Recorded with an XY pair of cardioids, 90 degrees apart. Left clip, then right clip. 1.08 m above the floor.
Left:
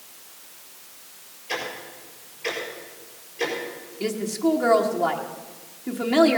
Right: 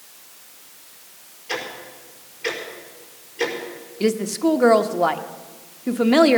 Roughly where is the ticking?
Ahead right.